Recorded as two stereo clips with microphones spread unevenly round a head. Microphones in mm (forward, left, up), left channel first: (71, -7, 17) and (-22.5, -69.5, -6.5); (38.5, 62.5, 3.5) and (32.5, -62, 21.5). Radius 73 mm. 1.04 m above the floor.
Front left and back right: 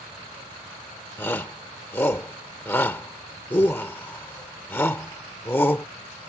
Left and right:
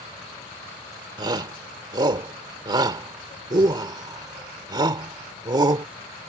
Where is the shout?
35° right.